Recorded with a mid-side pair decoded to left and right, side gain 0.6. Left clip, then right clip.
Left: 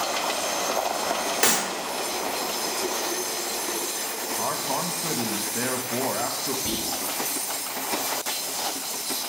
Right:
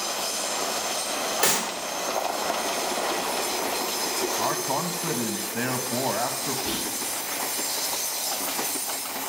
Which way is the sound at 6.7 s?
60° left.